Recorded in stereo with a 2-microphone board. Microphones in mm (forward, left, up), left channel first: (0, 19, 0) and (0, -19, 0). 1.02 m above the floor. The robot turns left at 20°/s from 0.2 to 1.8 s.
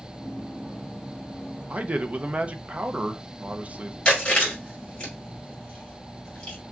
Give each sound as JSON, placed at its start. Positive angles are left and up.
{"t": 1.7, "sound": "a man speaking", "side_deg": -35, "distance_m": 0.6}
{"t": 4.0, "sound": "chewing", "side_deg": 25, "distance_m": 2.5}